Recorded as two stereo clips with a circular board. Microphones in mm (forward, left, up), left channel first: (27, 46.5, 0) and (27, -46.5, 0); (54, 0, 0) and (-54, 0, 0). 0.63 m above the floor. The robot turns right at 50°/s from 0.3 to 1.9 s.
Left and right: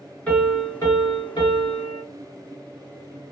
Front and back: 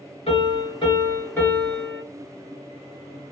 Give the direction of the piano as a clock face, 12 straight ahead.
12 o'clock.